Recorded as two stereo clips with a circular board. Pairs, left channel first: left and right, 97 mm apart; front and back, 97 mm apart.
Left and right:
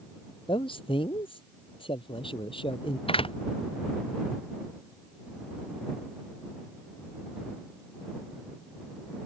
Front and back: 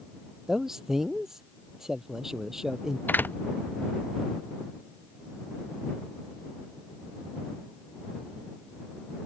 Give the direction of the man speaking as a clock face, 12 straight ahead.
9 o'clock.